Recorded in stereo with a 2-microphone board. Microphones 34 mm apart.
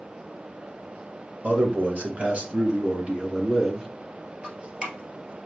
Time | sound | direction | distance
1.4 | a man speaking | 50° right (ahead or behind) | 1.8 m
4.4 | dripping | 30° right (ahead or behind) | 1.4 m